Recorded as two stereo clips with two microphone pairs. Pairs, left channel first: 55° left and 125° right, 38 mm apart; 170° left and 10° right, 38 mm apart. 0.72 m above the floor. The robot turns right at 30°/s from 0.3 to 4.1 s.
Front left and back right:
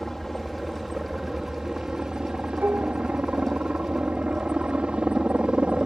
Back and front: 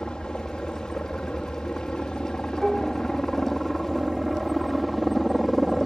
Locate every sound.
0.0 s a helicopter: 140° left; by 5.9 s 110° right
2.6 s dishes clattering: 100° right; by 3.0 s 90° right